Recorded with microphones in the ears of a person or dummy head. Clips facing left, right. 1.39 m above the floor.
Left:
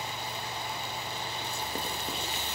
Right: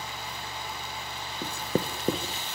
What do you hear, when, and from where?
1.4 s writing: 45° right (ahead or behind), 1.2 m